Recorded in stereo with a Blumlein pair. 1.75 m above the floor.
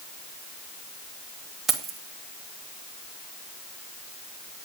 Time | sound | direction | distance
1.7 | keys jangling | 15° right | 2.5 m